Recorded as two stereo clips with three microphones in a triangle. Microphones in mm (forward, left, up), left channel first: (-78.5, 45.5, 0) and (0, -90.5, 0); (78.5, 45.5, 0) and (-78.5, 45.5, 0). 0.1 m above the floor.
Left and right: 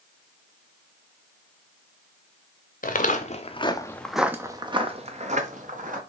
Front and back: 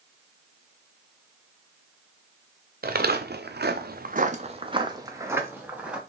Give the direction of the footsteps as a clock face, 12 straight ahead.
7 o'clock.